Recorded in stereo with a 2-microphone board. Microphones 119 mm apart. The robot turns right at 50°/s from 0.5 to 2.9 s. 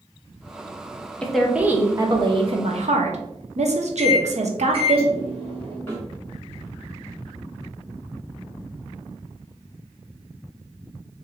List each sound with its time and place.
1.2 s a woman speaking: 170° left, 0.9 m; by 5.0 s 105° right, 0.9 m
4.0 s a microwave: 50° right (ahead or behind), 1.6 m
5.9 s a snare drum: 20° left (ahead or behind), 2 m